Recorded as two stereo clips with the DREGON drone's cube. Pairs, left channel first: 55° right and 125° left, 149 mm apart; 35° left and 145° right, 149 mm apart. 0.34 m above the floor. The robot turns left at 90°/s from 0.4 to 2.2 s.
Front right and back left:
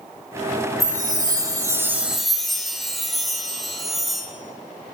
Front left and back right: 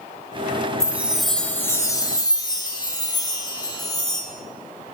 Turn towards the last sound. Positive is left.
turn(degrees=35)